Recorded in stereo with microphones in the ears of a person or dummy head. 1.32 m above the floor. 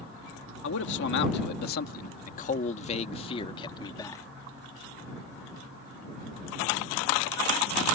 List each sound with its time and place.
0.6 s a man speaking: 65° left (ahead or behind); by 4.2 s 15° left (ahead or behind)